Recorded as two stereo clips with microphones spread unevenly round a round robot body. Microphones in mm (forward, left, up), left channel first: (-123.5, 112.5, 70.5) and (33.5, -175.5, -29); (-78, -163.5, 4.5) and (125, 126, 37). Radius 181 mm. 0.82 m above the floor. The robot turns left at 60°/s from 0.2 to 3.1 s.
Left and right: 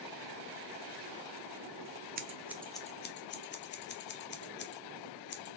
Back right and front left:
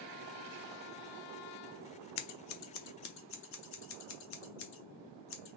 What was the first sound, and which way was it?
Scissors, 130° right.